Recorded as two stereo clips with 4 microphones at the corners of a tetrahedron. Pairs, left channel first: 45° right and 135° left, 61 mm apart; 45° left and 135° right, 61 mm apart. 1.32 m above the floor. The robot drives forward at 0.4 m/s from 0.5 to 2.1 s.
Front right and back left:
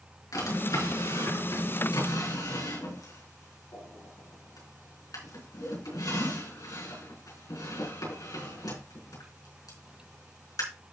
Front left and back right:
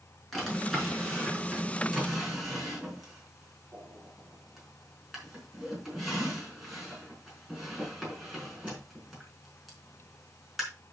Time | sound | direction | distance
0.3 | a drawer | 40° right | 5 m